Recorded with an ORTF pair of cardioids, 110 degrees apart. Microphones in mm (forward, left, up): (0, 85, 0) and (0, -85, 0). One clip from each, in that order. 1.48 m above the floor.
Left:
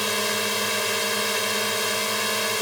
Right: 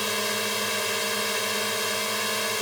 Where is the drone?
15° left.